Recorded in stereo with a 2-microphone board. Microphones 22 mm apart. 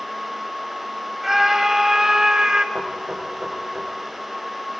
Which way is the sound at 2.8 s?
75° right (ahead or behind).